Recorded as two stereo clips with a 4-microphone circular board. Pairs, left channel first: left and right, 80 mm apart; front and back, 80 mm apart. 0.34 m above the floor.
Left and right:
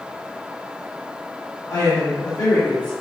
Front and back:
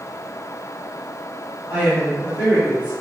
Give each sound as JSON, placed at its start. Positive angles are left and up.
{"t": 1.7, "sound": "a woman speaking", "azimuth_deg": 110, "distance_m": 2.5}